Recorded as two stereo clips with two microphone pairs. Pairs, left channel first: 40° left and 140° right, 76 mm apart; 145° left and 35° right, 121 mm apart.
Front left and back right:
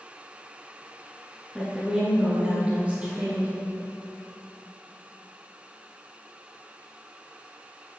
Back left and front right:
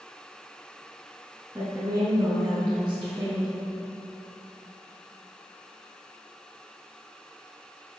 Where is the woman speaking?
50° right, 1.6 m; by 3.5 s 75° right, 2.5 m.